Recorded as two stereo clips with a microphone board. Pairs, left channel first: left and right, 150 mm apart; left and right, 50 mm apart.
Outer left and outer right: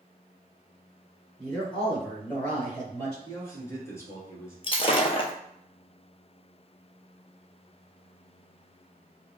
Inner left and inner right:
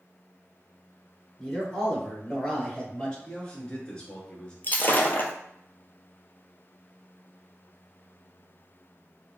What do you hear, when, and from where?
1.4 s a man speaking: 5° left (ahead or behind), 1.6 m; by 3.1 s 10° left (ahead or behind), 2.5 m
3.2 s a man speaking: 20° left (ahead or behind), 1.5 m
4.6 s breaking glass: 40° left (ahead or behind), 0.6 m